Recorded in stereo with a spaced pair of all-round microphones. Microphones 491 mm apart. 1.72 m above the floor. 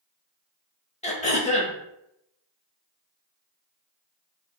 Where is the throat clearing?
15° left (ahead or behind), 0.5 m.